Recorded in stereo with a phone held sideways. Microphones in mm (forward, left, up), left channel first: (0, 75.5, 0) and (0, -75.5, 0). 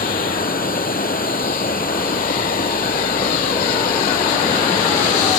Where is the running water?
70° left (ahead or behind).